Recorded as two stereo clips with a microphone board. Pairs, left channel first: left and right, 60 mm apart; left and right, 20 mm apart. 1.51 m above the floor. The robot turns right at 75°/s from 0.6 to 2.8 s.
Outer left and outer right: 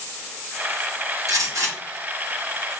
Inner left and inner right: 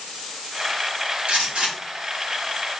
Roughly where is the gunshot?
Right.